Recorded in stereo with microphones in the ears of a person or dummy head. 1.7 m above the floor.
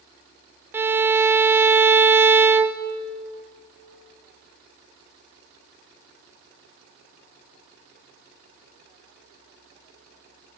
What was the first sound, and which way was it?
A violin, 10° right (ahead or behind).